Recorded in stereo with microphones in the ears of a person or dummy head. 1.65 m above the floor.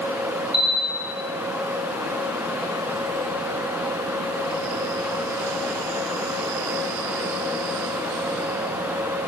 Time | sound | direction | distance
0.5 | a bell | 5° right (ahead or behind) | 1.9 m